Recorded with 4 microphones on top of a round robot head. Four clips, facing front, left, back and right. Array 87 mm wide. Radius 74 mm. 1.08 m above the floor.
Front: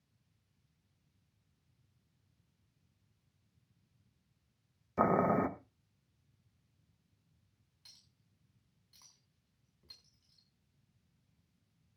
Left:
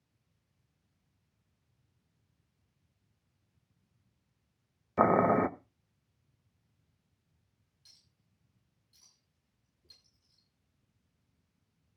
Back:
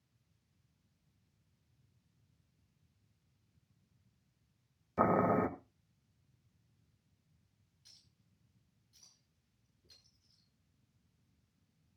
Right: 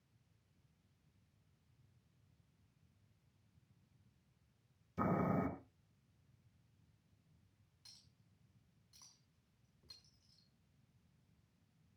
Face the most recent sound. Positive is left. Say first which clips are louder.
# right 1 dB, front 3 dB
turn(degrees=-30)